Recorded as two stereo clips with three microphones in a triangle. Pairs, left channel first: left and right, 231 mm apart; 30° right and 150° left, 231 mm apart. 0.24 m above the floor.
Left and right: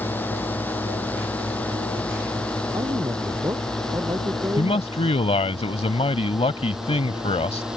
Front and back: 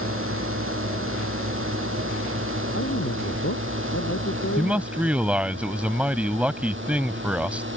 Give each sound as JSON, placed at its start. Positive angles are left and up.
{"t": 0.0, "sound": "a drone", "azimuth_deg": 170}
{"t": 2.7, "sound": "a man speaking", "azimuth_deg": -15}
{"t": 4.6, "sound": "a man speaking", "azimuth_deg": 75}